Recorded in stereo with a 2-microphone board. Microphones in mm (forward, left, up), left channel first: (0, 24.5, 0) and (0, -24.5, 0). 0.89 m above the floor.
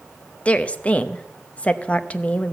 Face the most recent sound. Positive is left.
turn(degrees=25)  # may be behind; listen again after turning